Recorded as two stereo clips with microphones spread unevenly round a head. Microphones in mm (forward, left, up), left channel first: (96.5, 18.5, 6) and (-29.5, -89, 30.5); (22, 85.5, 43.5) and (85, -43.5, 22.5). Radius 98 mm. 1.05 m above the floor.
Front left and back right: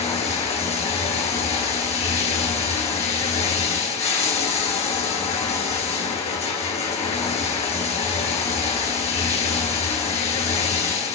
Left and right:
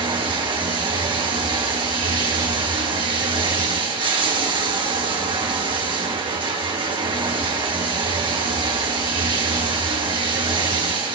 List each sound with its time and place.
0.0 s running water: 10° right, 3 m